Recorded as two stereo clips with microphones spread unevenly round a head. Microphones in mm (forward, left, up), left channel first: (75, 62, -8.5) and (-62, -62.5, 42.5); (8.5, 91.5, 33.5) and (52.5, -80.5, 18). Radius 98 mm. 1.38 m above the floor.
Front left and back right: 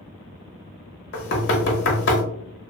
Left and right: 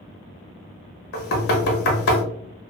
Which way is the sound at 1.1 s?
85° left.